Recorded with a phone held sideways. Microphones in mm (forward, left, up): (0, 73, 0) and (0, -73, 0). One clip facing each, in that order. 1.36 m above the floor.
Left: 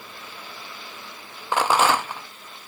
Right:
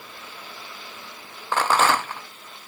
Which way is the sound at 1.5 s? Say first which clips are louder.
Left 1 dB; 10° left (ahead or behind).